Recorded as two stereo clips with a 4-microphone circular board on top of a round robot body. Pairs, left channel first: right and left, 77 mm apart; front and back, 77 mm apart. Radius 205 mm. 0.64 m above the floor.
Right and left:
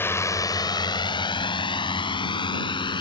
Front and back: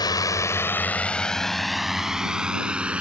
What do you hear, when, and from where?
0.0 s a drone: 30° right; by 3.0 s 105° right